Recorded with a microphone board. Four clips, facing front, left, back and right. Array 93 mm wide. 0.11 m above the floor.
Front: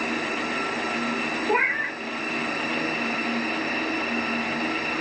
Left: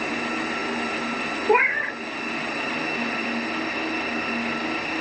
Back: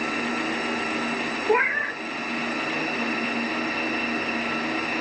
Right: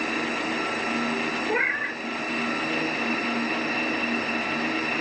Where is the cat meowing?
105° left, 1.2 m.